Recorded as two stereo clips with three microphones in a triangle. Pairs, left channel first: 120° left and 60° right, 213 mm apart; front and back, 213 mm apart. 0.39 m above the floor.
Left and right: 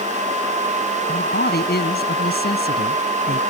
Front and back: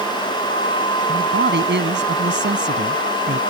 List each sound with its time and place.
1.1 s a man speaking: 155° left